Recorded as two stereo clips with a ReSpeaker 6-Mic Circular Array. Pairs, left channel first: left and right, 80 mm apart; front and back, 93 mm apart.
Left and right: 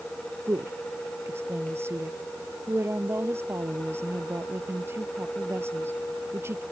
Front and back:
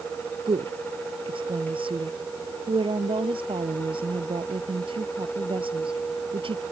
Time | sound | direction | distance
0.5 | a woman speaking | 150° right | ?